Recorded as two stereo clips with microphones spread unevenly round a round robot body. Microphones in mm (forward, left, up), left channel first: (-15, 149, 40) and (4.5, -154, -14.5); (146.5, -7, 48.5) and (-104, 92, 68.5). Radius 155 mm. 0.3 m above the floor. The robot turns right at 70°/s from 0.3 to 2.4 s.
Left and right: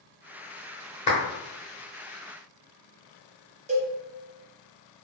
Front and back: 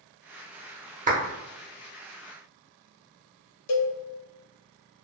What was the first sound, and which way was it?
A clap, 155° left.